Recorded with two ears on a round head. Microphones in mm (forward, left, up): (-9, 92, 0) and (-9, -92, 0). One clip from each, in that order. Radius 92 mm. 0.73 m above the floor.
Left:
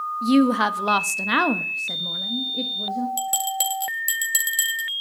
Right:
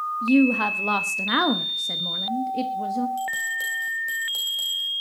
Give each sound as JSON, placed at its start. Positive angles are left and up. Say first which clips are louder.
{"t": 0.2, "sound": "a woman speaking", "louder": "left 1 dB", "side_deg": 45, "distance_m": 1.3}
{"t": 3.2, "sound": "a bell", "louder": "left 1 dB", "side_deg": 60, "distance_m": 2.5}